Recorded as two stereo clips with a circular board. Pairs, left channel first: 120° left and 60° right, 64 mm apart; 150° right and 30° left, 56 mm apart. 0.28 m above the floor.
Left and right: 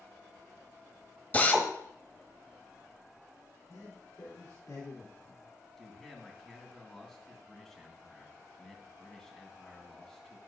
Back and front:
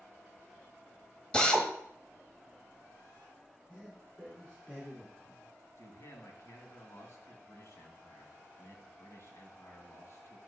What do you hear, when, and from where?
1.3 s a drill: 150° left, 1.5 m
3.7 s a man speaking: 135° left, 4 m
5.8 s a man speaking: 155° right, 2.5 m